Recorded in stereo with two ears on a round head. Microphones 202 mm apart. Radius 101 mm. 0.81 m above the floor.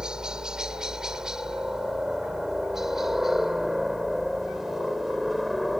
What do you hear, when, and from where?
0.0 s a helicopter: 5° right (ahead or behind); by 5.8 s centre (ahead or behind)